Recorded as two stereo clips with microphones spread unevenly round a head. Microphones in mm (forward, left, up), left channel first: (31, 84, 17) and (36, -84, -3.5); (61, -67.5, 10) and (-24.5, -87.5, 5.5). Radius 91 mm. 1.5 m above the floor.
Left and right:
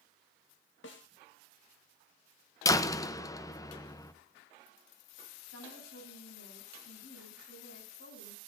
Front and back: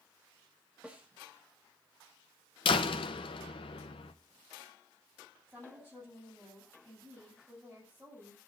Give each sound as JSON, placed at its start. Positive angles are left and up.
{"t": 0.8, "sound": "a snare drum", "azimuth_deg": 105, "distance_m": 1.9}
{"t": 2.6, "sound": "a door slam", "azimuth_deg": 25, "distance_m": 0.9}
{"t": 5.5, "sound": "a woman speaking", "azimuth_deg": 105, "distance_m": 9.5}